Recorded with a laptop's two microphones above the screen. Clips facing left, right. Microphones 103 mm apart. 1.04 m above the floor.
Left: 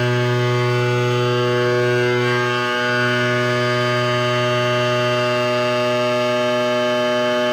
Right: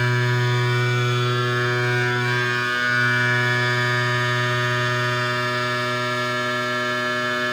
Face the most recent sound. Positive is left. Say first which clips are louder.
# left 5 dB
turn(degrees=65)  # may be behind; listen again after turning